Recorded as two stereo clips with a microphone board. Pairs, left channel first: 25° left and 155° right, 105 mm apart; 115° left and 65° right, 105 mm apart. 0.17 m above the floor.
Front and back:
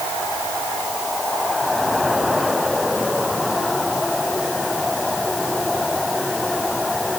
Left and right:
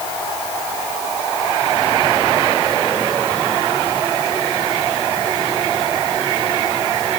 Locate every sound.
Only background noise.